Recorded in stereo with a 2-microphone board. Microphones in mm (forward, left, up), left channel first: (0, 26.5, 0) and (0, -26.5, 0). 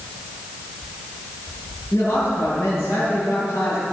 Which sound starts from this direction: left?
A man speaking, at 1.9 s.